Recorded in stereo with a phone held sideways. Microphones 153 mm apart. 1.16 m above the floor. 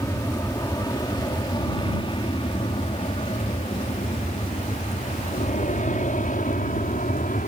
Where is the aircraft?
20° left (ahead or behind); by 7.5 s 65° left (ahead or behind).